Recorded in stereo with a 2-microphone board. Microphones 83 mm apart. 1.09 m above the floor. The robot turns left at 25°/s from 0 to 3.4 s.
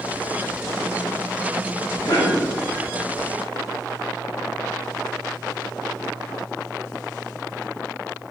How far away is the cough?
About 1.0 m.